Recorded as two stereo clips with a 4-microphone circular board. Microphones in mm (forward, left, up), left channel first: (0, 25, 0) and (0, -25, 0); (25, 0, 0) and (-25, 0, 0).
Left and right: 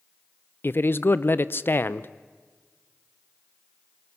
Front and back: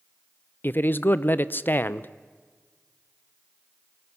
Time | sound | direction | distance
0.6 | a man speaking | 50° left | 0.7 m